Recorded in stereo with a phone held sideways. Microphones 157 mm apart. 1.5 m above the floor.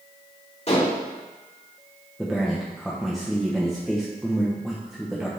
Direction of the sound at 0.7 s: 45° left (ahead or behind).